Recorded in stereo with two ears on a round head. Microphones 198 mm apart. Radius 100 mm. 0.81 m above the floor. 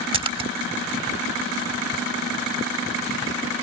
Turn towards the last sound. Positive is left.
turn(degrees=-25)  # may be behind; listen again after turning